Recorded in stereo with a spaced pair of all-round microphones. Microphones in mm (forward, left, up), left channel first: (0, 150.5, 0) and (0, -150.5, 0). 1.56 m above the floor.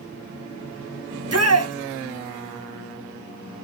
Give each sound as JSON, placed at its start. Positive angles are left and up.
{"t": 1.1, "sound": "a shout", "side_deg": -55, "distance_m": 0.9}